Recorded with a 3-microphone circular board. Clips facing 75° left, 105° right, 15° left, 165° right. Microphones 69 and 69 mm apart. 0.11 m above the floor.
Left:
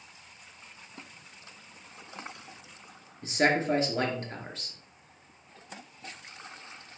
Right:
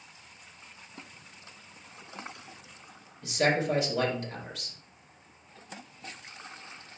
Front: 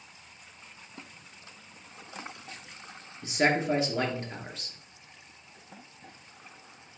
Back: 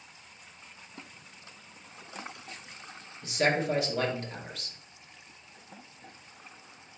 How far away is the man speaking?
About 2 m.